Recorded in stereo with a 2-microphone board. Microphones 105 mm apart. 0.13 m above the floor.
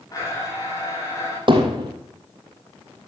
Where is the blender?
35° left (ahead or behind), 8.5 m.